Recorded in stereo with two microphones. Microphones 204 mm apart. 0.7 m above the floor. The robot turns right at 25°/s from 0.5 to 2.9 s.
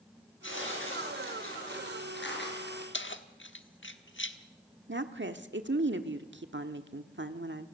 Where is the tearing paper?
70° left, 5.5 m; by 2.8 s 130° left, 5.5 m.